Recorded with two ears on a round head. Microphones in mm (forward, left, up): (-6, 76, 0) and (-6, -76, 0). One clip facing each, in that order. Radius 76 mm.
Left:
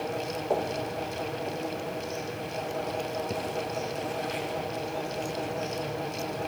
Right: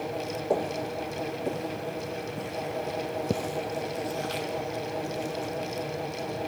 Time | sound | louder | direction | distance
0.5 | footsteps | right 1 dB | 20° right (ahead or behind) | 1.8 m